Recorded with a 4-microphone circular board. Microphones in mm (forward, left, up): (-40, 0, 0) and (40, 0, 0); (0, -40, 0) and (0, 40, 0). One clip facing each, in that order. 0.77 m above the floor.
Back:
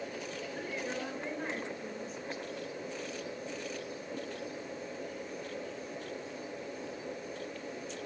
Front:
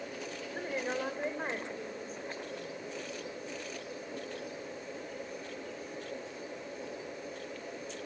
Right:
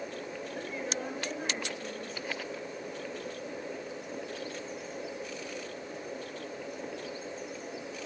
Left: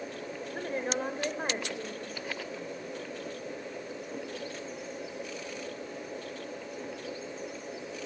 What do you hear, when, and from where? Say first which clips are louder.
0.5 s a woman speaking: front 4 dB, left 6 dB; 50° left, 3.5 m